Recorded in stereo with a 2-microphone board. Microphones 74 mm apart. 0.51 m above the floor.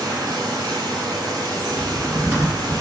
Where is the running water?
60° right (ahead or behind), 1.1 m.